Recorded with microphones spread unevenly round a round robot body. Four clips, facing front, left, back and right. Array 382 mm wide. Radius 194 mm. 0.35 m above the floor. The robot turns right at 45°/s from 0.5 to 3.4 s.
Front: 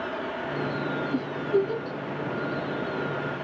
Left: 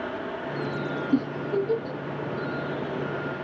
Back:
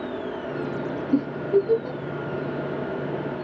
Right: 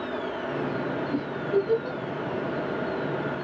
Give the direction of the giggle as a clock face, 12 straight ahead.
8 o'clock.